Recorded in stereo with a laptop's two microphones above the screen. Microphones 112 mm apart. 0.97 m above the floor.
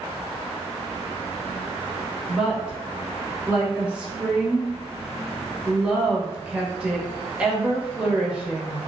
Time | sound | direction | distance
2.3 | a woman speaking | 10° right (ahead or behind) | 0.7 m